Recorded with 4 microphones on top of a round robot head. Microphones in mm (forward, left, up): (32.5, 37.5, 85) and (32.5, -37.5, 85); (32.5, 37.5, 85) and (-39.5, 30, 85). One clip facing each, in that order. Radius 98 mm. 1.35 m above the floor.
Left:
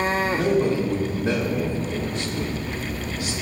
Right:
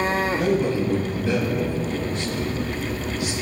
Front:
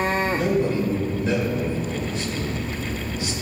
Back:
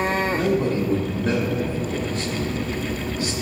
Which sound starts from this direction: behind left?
A man speaking, at 0.3 s.